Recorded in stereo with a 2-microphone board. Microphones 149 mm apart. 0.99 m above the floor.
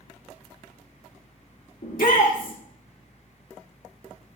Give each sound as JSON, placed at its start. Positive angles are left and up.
{"t": 1.8, "sound": "a shout", "side_deg": 70, "distance_m": 2.5}